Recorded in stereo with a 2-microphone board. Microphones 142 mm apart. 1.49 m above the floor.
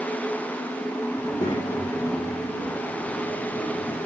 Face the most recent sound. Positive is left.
turn(degrees=30)  # may be behind; listen again after turning